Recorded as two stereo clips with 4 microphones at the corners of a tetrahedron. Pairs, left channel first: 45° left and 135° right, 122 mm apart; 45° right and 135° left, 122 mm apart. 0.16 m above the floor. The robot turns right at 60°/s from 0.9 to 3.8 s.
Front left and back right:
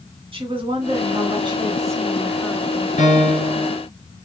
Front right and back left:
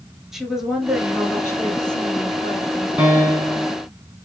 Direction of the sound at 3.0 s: 60° left.